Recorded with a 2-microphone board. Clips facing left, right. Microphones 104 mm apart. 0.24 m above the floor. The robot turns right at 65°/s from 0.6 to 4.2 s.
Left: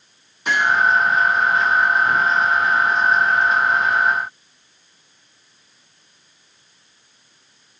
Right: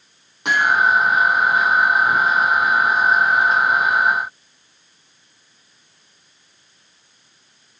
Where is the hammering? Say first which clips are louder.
Right 1 dB; 70° right (ahead or behind), 6.5 m; by 0.8 s 80° right, 6.5 m.